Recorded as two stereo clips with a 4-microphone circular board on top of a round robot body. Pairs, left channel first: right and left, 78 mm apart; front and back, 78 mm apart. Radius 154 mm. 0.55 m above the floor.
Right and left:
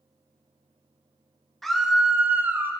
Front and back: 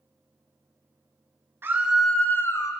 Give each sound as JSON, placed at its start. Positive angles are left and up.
{"t": 1.6, "sound": "a scream", "azimuth_deg": -170, "distance_m": 0.8}